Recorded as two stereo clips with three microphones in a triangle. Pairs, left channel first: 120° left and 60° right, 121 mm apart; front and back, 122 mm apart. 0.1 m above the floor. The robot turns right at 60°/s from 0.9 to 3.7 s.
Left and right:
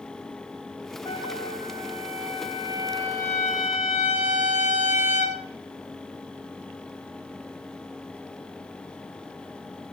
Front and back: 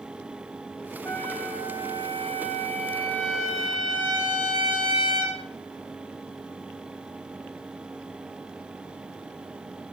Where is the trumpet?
70° left, 4.5 m; by 5.4 s 130° right, 4.5 m.